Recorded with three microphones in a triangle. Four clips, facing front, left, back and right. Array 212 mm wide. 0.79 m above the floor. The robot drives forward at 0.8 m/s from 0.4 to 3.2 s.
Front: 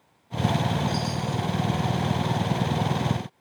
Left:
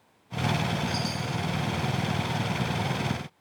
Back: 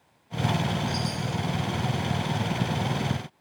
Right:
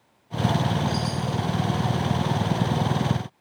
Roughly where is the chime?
Ahead right.